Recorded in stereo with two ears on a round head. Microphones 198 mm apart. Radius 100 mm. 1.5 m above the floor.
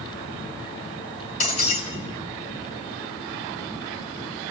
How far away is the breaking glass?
About 5 m.